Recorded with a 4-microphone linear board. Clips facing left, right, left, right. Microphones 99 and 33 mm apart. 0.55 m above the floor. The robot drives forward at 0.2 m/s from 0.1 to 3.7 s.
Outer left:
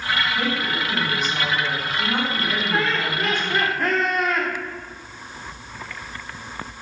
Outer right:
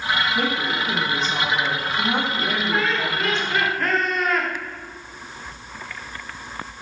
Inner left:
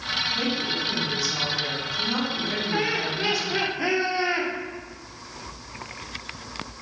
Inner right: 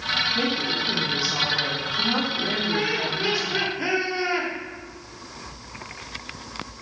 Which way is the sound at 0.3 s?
30° right (ahead or behind).